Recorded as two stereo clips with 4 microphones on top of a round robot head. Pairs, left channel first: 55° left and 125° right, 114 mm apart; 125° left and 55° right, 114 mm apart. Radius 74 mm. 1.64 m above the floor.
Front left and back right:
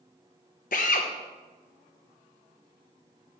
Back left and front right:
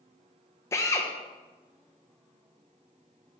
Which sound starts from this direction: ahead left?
A drill, at 0.7 s.